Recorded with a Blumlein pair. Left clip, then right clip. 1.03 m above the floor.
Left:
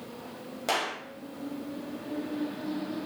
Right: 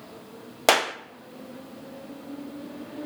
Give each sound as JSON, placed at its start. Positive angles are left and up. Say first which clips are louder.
{"t": 0.7, "sound": "a clap", "louder": "right 8 dB", "azimuth_deg": -35, "distance_m": 0.6}